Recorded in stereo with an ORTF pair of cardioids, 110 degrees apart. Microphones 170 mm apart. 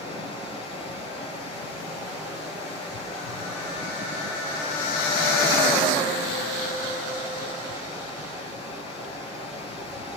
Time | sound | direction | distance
0.0 | running water | 35° left | 4 m